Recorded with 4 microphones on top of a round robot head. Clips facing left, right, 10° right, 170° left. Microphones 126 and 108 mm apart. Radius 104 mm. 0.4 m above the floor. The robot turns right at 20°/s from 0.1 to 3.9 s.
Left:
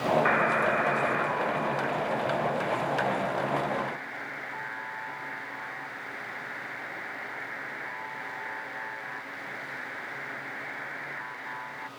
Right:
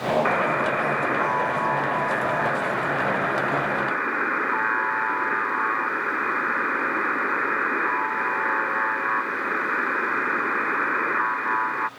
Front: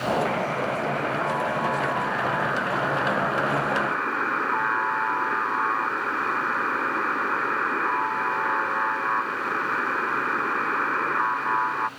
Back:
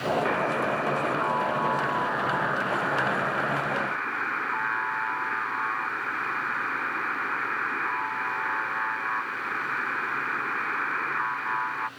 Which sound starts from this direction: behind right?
A buzzer, at 0.2 s.